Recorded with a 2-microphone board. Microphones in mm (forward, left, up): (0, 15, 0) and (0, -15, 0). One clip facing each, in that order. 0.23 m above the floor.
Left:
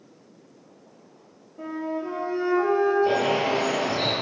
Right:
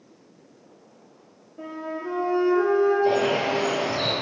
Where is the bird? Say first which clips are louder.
Right 1 dB; 10° right (ahead or behind), 1.6 m.